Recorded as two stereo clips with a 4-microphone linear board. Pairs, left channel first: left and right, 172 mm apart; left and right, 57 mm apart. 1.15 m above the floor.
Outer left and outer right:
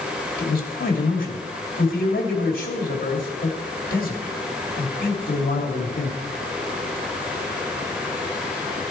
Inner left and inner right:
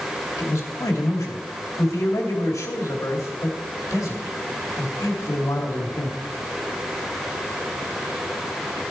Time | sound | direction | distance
0.4 | a man speaking | 50° left (ahead or behind) | 2.5 m